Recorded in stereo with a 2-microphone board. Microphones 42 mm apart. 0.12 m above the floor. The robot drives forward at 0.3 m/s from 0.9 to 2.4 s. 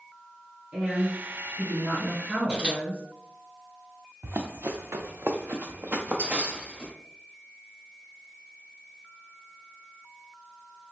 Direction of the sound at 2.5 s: 30° right (ahead or behind).